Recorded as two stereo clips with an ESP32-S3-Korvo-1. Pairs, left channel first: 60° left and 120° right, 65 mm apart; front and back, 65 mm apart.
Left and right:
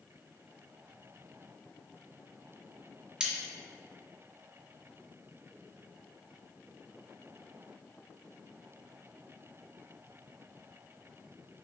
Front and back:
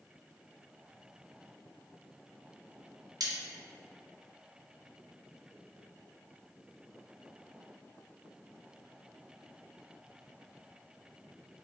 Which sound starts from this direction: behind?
Cutlery clinking, at 3.2 s.